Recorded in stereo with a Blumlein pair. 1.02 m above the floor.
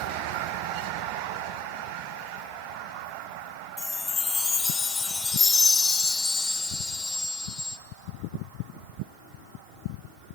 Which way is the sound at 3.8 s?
15° left.